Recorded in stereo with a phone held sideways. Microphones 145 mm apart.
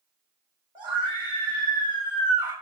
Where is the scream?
35° right (ahead or behind), 4.5 m; by 2.5 s 30° right (ahead or behind), 5.5 m.